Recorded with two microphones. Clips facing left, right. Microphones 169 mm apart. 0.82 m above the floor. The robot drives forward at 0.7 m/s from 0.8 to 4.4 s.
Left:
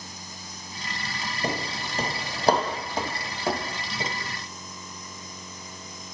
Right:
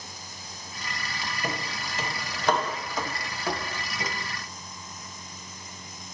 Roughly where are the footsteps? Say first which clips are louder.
Left 5 dB; left.